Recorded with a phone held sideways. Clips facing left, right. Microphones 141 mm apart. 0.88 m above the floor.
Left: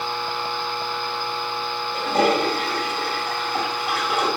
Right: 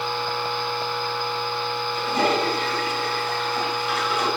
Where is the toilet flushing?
70° left (ahead or behind), 2 m.